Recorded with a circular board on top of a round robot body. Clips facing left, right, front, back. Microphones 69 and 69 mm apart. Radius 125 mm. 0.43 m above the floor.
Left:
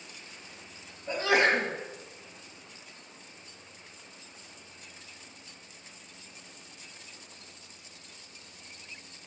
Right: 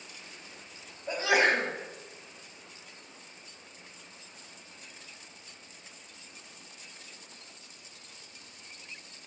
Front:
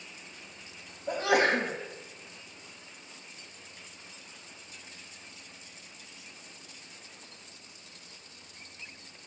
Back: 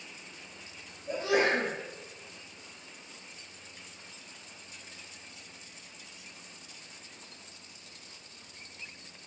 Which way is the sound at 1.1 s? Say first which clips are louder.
Left 1 dB, front 2 dB; 10° right.